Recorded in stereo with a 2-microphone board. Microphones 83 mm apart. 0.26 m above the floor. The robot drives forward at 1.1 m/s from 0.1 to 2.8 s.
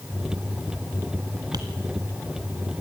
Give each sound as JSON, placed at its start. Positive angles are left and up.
{"t": 1.5, "sound": "tapping", "side_deg": -55, "distance_m": 1.8}